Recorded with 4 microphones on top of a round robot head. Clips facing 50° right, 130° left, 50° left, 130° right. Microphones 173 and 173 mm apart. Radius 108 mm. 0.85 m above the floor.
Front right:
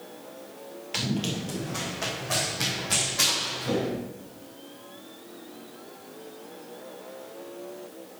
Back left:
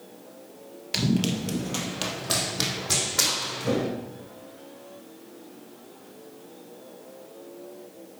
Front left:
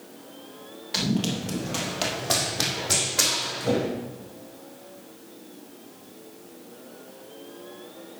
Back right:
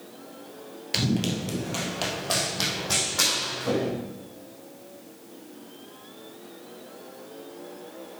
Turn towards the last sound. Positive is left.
turn(degrees=125)